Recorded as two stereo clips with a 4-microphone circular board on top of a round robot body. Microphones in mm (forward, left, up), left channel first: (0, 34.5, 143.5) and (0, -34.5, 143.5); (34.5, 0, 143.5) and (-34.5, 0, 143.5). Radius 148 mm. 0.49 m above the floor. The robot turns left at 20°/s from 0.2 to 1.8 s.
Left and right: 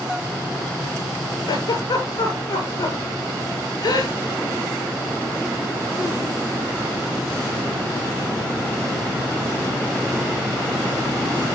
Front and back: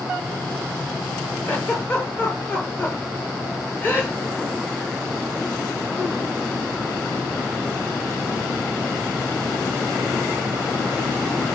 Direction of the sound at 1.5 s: 70° left.